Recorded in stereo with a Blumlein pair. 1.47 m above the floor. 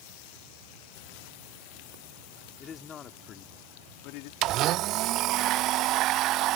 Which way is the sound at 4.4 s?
35° right.